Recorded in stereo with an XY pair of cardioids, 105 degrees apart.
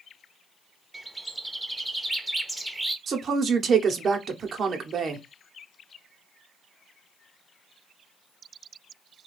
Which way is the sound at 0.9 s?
10° right.